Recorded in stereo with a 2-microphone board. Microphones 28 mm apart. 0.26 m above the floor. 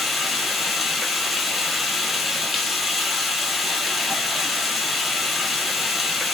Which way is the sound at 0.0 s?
Centre (ahead or behind).